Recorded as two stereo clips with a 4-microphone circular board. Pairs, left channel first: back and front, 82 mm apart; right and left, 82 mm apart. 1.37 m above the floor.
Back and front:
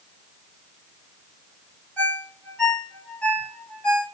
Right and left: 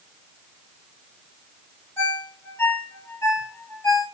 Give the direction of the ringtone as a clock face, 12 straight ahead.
4 o'clock.